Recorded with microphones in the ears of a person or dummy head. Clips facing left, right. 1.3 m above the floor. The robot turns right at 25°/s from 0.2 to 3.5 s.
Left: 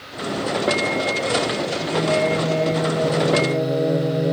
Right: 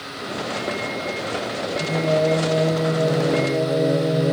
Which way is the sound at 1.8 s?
40° right.